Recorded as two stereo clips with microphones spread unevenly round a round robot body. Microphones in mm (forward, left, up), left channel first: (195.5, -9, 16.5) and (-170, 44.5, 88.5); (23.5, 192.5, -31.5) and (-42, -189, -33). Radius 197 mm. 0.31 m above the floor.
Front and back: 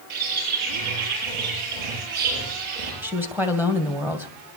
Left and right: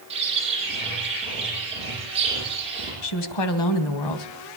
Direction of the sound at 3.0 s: 80° left.